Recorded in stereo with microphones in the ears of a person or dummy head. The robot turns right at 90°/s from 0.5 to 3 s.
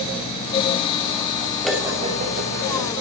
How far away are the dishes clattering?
About 2.5 m.